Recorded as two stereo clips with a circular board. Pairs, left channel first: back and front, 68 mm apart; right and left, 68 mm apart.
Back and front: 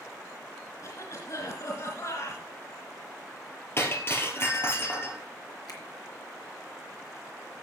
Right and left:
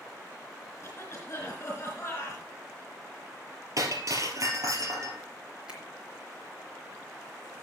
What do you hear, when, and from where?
0.8 s a cough: 150° right, 3.5 m
3.8 s breaking glass: 130° left, 2.5 m
5.7 s a finger snap: 165° left, 2.5 m